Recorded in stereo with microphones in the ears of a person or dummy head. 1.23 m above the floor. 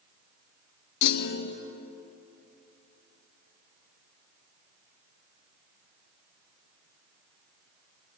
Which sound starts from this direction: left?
A clunk, at 1.0 s.